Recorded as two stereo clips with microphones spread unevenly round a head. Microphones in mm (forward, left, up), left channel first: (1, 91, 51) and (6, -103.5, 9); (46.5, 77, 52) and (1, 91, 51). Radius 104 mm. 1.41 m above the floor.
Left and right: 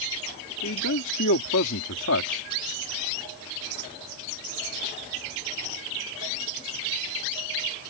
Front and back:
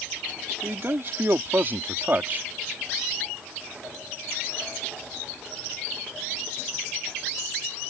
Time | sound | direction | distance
0.6 | a man speaking | 125° left | ?